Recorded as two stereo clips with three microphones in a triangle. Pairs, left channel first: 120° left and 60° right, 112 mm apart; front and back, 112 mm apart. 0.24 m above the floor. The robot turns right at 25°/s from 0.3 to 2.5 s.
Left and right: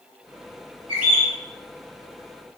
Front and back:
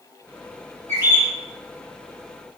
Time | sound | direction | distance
0.9 | a bird | 130° right | 1.8 m